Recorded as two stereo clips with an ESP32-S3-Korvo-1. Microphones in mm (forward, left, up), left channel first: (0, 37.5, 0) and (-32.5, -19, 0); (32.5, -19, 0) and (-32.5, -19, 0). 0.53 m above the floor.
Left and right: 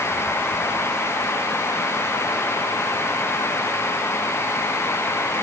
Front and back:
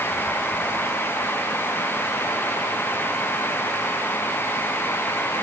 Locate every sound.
Only background noise.